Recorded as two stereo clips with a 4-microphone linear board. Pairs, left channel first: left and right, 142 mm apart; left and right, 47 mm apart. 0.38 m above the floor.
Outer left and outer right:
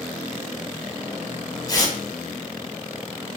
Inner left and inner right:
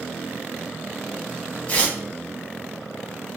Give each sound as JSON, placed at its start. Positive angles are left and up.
{"t": 1.7, "sound": "tearing paper", "side_deg": 30, "distance_m": 0.9}